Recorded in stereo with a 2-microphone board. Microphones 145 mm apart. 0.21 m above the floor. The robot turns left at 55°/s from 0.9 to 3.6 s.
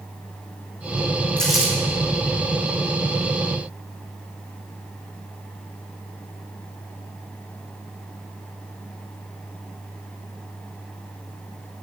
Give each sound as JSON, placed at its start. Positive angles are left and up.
{"t": 1.4, "sound": "crumpling", "side_deg": 10, "distance_m": 3.5}